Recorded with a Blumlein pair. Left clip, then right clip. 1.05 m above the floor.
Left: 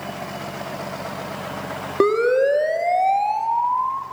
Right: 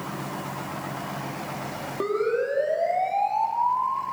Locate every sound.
2.0 s a siren: 55° left, 3 m; by 4.0 s 5° left, 2 m